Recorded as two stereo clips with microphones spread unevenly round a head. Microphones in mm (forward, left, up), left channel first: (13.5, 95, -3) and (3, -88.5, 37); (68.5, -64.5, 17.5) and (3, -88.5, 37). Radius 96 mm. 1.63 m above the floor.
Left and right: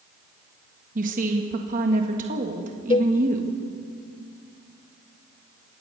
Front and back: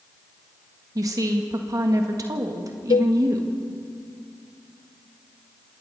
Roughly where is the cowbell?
Ahead.